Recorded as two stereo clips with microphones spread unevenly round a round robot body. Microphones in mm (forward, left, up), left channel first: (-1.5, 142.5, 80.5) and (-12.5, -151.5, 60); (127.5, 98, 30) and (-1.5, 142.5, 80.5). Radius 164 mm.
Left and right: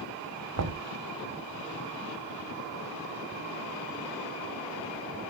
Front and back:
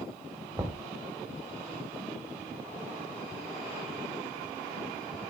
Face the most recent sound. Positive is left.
turn(degrees=-115)